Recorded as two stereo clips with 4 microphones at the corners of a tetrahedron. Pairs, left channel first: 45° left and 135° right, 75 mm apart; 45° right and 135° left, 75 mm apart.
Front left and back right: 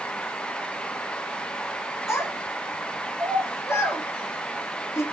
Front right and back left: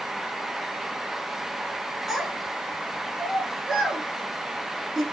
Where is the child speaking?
55° left, 1.1 m.